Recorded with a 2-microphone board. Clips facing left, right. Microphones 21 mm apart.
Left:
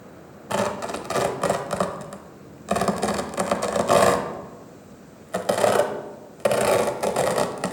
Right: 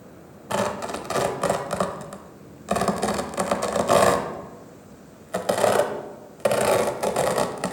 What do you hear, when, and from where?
0.5 s tearing paper: centre (ahead or behind), 0.7 m